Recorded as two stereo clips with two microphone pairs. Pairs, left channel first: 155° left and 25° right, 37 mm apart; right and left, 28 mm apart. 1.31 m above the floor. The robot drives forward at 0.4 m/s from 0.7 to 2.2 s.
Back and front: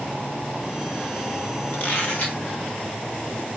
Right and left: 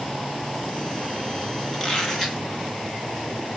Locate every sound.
1.7 s a squeak: 165° right, 2.5 m